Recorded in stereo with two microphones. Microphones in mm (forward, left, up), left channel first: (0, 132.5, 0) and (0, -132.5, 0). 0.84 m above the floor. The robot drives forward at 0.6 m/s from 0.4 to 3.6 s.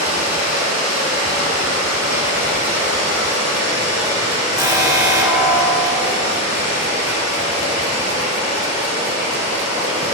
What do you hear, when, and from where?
0.0 s running water: 80° right, 4 m; by 10.2 s 70° right (ahead or behind), 4 m
4.6 s an alarm: 15° right (ahead or behind), 1.8 m